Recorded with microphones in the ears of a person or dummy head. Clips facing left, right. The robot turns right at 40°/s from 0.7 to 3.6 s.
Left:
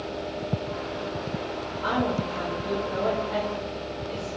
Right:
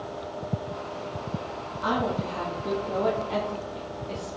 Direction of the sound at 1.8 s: 120° right.